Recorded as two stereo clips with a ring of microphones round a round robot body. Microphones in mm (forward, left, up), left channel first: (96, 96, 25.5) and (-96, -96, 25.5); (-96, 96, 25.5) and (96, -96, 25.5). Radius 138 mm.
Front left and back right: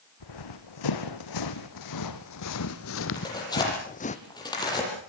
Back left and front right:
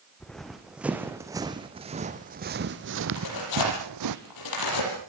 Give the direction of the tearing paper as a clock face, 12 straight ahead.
8 o'clock.